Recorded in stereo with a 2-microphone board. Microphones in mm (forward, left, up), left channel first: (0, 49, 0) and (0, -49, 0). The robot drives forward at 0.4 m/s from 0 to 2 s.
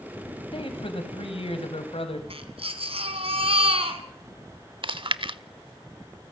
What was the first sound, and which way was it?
A man speaking, 65° left (ahead or behind).